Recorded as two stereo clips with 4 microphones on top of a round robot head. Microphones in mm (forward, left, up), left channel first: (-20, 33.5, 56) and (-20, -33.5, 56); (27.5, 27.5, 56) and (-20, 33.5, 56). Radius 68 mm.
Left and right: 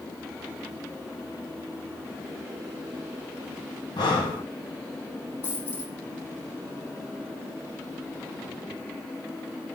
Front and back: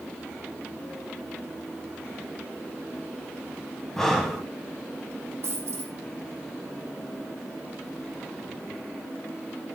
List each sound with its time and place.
4.0 s breathing: 75° left, 1.7 m
5.4 s a dropped coin: 145° left, 5 m